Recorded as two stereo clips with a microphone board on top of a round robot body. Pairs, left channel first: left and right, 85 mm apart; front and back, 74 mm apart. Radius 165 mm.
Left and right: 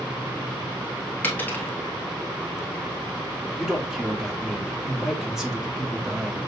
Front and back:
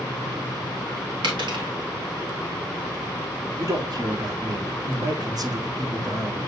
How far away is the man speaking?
About 1.7 m.